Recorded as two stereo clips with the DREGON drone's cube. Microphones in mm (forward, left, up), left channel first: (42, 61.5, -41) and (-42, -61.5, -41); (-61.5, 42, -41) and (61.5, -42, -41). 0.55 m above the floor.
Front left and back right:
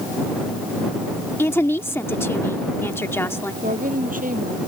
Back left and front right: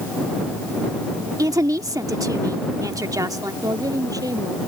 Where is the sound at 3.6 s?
100° right.